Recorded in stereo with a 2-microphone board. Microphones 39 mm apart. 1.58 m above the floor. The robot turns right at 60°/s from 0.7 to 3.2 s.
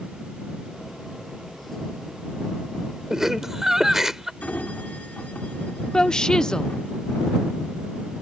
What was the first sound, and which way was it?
Laughter, 15° right (ahead or behind).